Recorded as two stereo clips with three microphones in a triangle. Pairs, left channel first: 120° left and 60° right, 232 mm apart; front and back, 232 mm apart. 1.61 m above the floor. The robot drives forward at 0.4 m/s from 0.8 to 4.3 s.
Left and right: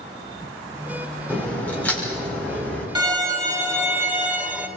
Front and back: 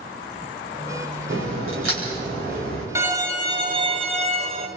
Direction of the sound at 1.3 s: 155° right.